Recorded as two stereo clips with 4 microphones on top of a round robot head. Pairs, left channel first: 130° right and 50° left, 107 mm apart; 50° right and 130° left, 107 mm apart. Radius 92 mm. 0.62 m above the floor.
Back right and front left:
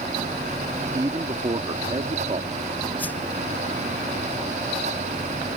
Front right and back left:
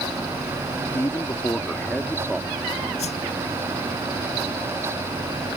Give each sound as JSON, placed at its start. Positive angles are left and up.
{"t": 0.9, "sound": "a man speaking", "azimuth_deg": 5}
{"t": 3.0, "sound": "a whoosh", "azimuth_deg": -55}